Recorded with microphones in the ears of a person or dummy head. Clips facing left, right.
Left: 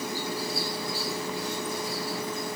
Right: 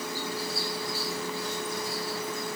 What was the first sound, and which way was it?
Only background noise.